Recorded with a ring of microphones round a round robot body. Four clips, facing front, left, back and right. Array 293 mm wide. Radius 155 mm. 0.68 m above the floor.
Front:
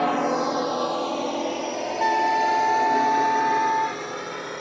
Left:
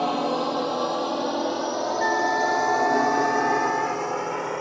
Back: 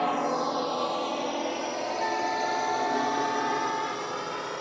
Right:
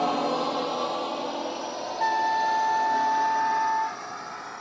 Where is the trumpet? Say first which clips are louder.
Right 1 dB, front 9 dB; 20° left.